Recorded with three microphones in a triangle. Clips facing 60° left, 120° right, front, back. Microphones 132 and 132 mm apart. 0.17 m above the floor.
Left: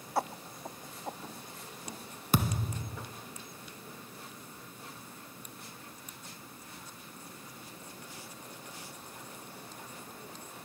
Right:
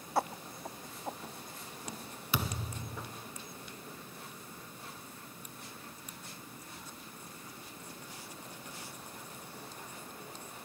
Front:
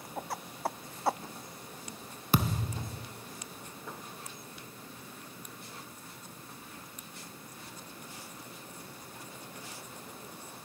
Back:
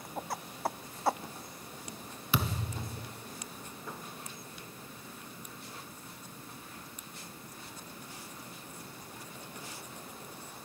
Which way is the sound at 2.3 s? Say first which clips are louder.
Left 6 dB, front 3 dB; 35° left.